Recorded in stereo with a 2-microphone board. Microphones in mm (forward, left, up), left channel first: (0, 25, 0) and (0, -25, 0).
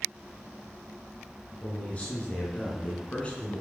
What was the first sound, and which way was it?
A man speaking, 25° left (ahead or behind).